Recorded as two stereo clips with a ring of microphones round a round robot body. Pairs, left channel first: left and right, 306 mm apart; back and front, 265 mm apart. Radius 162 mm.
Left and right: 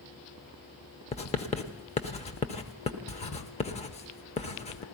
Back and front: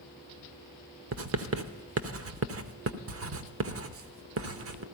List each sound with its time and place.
1.1 s writing: 25° left, 0.8 m